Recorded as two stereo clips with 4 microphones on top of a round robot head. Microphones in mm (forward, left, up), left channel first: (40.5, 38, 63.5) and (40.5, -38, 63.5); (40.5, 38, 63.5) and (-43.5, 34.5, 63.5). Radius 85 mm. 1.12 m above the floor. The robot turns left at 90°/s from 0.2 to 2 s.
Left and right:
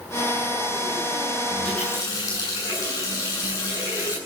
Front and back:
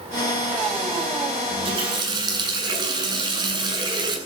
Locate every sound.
1.5 s a running tap: 170° right, 8.5 m; by 4.2 s 150° left, 8.5 m